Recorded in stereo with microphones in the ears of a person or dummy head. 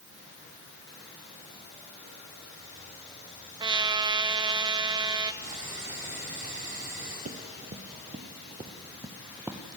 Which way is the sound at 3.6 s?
25° right (ahead or behind).